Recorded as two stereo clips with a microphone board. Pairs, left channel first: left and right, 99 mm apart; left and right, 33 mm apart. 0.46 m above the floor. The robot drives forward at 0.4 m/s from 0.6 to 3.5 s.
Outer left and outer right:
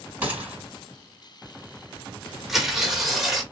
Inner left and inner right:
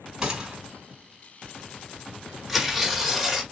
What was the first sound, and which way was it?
A gunshot, 15° right (ahead or behind).